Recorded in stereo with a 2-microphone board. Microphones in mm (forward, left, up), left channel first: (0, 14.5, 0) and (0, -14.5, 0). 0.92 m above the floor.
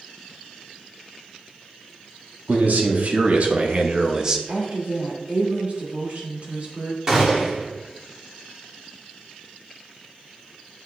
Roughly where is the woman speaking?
Right.